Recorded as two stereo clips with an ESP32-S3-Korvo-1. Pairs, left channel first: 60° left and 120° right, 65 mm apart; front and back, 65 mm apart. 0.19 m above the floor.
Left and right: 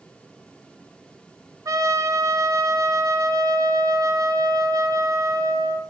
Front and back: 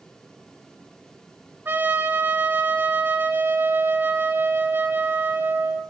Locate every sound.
1.6 s a trumpet: 130° right, 1.4 m